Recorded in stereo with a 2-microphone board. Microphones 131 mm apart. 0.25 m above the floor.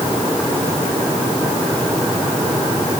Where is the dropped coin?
I don't hear a dropped coin.